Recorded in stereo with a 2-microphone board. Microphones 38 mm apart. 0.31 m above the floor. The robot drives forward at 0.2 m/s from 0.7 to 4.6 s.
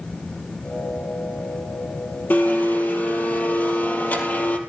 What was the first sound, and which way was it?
A blender, 60° left (ahead or behind).